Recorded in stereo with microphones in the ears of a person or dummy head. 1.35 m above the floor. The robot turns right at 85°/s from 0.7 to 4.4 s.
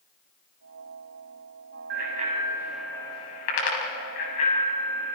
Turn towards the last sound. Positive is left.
turn(degrees=45)  # may be behind; listen again after turning